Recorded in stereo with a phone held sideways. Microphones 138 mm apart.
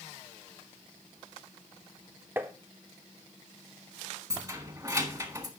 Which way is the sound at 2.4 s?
15° right (ahead or behind).